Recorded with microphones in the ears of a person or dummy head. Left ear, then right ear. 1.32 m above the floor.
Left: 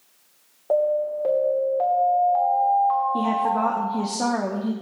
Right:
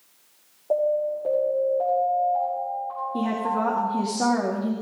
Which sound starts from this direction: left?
An alarm, at 0.7 s.